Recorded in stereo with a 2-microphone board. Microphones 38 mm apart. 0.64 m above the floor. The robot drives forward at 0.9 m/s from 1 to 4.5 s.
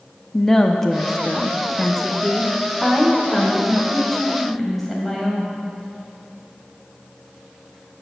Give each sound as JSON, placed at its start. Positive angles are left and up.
{"t": 0.3, "sound": "a woman speaking", "side_deg": 15, "distance_m": 0.6}